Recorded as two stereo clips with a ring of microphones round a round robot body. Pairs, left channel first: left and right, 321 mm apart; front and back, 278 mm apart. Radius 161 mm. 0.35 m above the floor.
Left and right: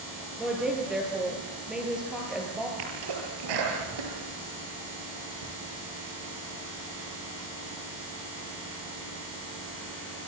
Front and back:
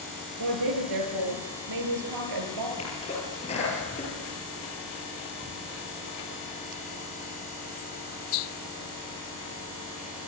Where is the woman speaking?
Straight behind, 8.5 m.